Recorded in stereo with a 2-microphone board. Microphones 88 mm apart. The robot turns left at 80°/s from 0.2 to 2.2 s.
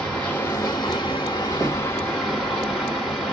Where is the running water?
165° left, 1.6 m; by 3.3 s 5° left, 1.6 m.